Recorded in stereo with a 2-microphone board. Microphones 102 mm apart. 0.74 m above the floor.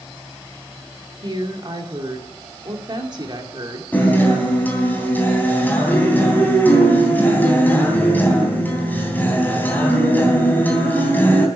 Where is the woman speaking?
45° right (ahead or behind), 2.5 m.